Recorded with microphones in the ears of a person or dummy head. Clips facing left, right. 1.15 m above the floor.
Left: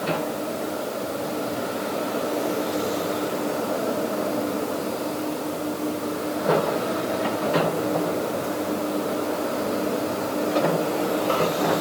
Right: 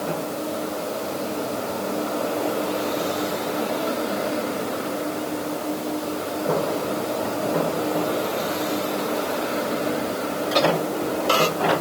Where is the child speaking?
No child speaking in this recording.